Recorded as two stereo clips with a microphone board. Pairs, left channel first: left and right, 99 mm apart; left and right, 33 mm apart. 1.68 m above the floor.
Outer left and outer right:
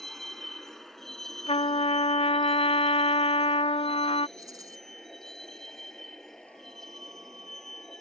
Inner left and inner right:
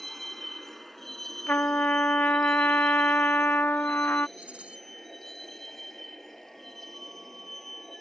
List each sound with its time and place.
0.0 s a vehicle: centre (ahead or behind); by 8.0 s 5° left (ahead or behind)
1.5 s a trumpet: 65° left (ahead or behind)
4.4 s a rattle: 35° right (ahead or behind)